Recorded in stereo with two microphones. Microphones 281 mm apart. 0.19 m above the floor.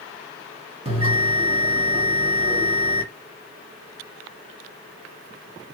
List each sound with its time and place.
0.8 s a bell: 20° right (ahead or behind), 1.7 m